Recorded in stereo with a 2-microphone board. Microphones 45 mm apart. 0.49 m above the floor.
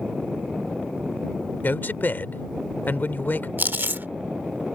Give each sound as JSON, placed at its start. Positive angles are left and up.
{"t": 1.6, "sound": "a man speaking", "side_deg": 50}
{"t": 3.6, "sound": "chewing", "side_deg": -50}